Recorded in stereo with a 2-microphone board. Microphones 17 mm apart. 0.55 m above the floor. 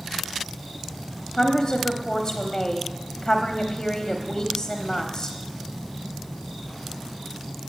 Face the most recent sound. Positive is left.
turn(degrees=25)  # may be behind; listen again after turning